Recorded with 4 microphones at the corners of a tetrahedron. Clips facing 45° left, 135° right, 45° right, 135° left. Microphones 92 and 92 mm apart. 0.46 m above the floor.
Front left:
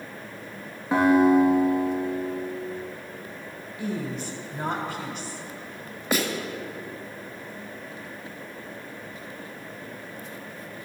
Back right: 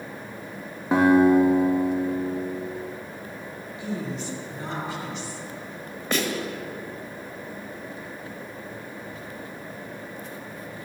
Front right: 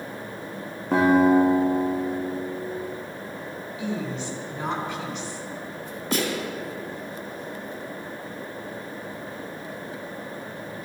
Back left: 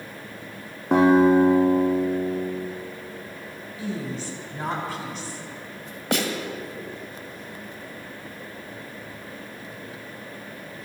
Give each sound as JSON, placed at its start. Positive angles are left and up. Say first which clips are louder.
{"t": 0.9, "sound": "a guitar", "louder": "back right 1 dB, back left 2 dB", "azimuth_deg": 155, "distance_m": 3.5}
{"t": 3.8, "sound": "a woman speaking", "louder": "front left 1 dB, front right 1 dB", "azimuth_deg": 85, "distance_m": 3.0}
{"t": 6.1, "sound": "a snare drum", "louder": "even, back left 1 dB", "azimuth_deg": 125, "distance_m": 2.0}